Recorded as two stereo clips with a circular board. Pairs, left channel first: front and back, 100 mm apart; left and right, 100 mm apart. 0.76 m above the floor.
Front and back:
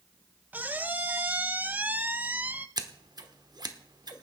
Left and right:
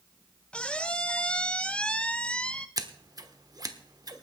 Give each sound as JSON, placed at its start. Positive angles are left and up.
{"t": 0.5, "sound": "a squeak", "azimuth_deg": 145, "distance_m": 0.6}
{"t": 2.8, "sound": "scissors", "azimuth_deg": -135, "distance_m": 1.0}